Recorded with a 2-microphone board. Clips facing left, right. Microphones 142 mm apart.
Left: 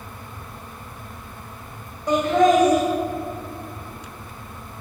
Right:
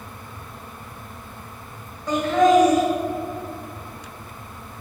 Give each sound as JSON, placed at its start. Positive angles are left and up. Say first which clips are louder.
{"t": 2.1, "sound": "laughter", "louder": "even", "side_deg": 20, "distance_m": 1.8}